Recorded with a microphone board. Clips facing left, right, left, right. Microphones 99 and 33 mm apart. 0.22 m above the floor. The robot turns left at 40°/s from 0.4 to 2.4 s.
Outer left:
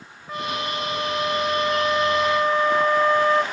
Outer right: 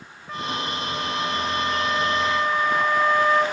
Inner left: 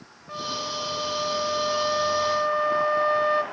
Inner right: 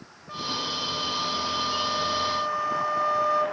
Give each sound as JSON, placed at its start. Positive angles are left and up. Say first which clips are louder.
{"t": 0.3, "sound": "a flute", "louder": "outer left 1 dB, even", "azimuth_deg": 170, "distance_m": 0.8}